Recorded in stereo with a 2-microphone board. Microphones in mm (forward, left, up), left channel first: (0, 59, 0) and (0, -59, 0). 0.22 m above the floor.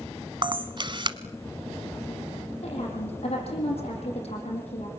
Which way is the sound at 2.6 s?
60° left (ahead or behind).